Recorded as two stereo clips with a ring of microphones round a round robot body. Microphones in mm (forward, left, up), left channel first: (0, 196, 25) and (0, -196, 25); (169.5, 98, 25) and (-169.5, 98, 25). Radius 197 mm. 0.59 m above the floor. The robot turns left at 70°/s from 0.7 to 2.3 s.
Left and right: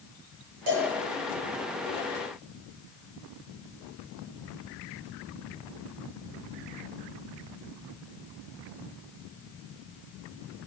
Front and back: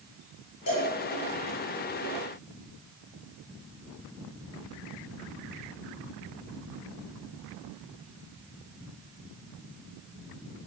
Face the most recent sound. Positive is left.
turn(degrees=-165)